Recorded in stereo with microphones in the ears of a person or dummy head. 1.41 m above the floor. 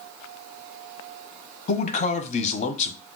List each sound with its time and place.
1.7 s a man speaking: 35° left (ahead or behind), 0.6 m